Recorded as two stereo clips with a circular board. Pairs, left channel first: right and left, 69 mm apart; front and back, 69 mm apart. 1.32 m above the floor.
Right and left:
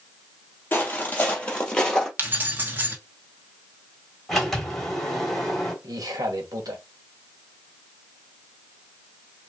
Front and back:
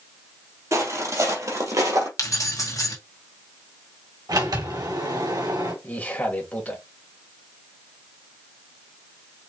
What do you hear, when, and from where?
0.7 s footsteps: 145° right, 2.5 m; by 2.1 s 170° right, 2 m
2.2 s keys jangling: 35° left, 1.3 m
4.3 s a sliding door: 175° right, 2.5 m
5.8 s a man speaking: 70° left, 1.6 m